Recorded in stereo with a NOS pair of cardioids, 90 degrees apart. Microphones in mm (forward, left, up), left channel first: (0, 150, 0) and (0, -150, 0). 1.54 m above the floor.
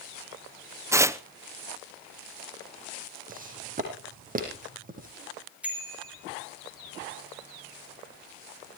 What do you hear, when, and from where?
0.9 s tearing paper: 10° right, 0.8 m
3.3 s footsteps: 30° right, 5 m
5.6 s a bicycle bell: 5° right, 5 m